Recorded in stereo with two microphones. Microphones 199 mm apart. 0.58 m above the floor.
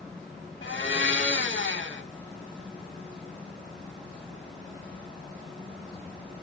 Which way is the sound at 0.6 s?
75° left (ahead or behind).